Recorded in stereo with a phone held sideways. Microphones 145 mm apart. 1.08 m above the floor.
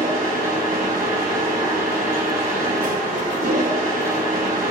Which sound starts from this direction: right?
A machine running, at 0.0 s.